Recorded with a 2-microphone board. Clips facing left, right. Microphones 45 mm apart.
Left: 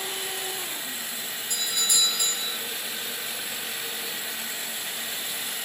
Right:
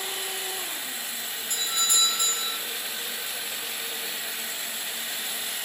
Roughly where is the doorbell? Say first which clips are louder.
Right 1 dB; right.